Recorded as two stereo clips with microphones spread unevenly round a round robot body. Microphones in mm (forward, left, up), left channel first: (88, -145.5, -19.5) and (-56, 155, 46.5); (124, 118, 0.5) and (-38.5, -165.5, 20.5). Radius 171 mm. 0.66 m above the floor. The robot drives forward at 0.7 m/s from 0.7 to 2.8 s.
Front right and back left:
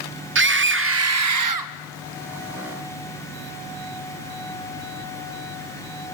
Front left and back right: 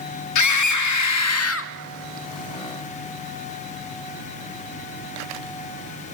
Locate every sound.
0.3 s a scream: 55° left, 1.3 m; by 1.7 s 100° left, 1.1 m